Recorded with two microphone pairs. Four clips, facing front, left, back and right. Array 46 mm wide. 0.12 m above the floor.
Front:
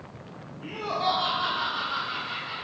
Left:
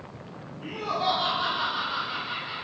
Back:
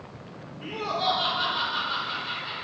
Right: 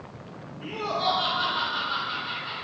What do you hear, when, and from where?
0.6 s laughter: 155° right, 2.5 m